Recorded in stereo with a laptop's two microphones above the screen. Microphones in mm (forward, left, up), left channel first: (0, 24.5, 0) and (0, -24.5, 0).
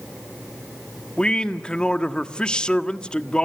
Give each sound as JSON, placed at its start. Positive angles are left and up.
{"t": 1.2, "sound": "a man speaking", "side_deg": 20, "distance_m": 1.6}